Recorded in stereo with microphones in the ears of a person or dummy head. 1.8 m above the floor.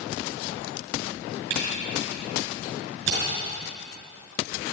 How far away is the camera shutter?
About 6 m.